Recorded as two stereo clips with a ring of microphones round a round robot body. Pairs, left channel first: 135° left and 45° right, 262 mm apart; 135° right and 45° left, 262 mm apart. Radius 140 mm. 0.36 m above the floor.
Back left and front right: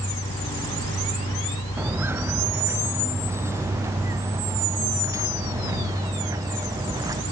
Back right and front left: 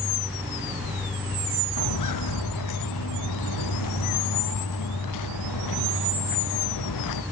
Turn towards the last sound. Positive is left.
turn(degrees=-120)